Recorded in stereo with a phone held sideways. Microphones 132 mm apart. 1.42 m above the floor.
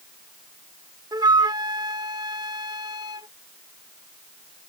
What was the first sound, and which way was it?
A flute, 30° right (ahead or behind).